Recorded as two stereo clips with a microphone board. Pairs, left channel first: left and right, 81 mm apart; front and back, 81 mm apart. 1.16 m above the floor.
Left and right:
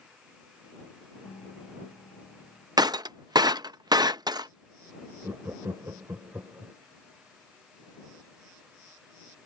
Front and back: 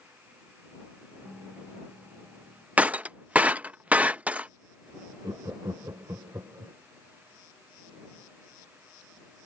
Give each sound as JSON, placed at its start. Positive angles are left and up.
{"t": 1.2, "sound": "a piano", "azimuth_deg": 95}
{"t": 2.8, "sound": "breaking glass", "azimuth_deg": -110}
{"t": 5.2, "sound": "laughter", "azimuth_deg": -140}